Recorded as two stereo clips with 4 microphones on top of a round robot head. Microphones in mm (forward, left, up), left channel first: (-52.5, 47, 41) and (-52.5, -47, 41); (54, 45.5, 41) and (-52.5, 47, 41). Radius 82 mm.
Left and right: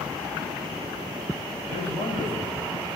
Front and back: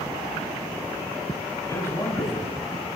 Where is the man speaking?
60° left, 7.5 m.